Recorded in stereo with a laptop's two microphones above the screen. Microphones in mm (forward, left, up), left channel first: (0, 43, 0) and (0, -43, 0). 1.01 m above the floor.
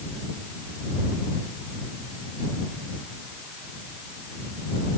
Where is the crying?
I don't hear crying.